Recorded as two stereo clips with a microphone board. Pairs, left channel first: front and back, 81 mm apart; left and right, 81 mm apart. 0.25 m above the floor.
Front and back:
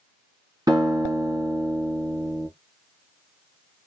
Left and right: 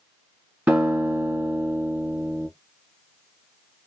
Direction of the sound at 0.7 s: 150° right.